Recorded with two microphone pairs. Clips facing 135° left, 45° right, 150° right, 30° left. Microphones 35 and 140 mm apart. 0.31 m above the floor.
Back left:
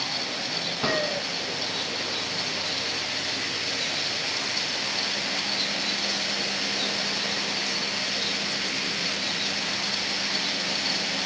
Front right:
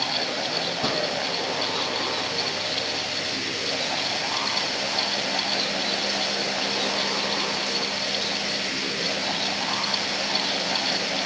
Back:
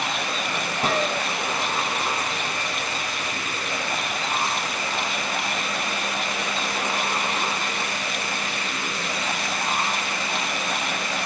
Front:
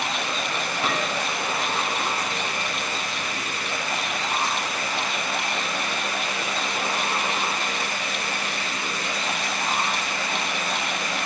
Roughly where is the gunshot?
Behind.